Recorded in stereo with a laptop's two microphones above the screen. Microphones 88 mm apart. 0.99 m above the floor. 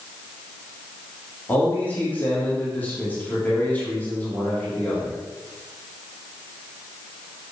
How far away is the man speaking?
About 2.5 m.